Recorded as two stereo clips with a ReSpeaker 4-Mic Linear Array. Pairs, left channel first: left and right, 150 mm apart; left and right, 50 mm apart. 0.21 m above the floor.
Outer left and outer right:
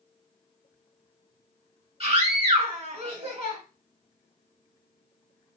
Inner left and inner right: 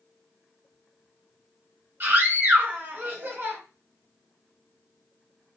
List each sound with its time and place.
2.0 s a scream: 45° right (ahead or behind), 2.5 m